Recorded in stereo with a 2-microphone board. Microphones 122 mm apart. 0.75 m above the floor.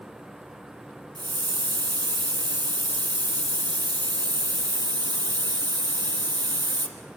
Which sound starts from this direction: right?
A hiss, at 1.1 s.